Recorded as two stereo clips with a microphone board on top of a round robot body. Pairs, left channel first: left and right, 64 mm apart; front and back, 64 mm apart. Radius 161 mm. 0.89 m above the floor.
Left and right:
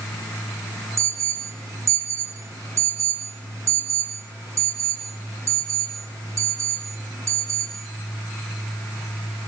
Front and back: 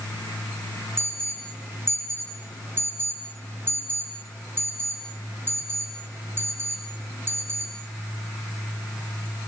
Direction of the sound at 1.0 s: 130° right.